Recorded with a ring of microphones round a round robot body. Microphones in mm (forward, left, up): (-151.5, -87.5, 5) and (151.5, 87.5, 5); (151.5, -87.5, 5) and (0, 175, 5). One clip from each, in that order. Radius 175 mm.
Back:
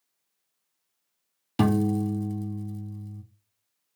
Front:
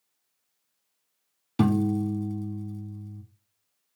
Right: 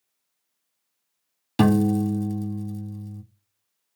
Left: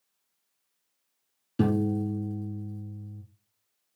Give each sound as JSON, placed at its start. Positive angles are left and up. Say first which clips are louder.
{"t": 1.6, "sound": "a piano", "louder": "back 1 dB, right 6 dB", "azimuth_deg": -75, "distance_m": 0.5}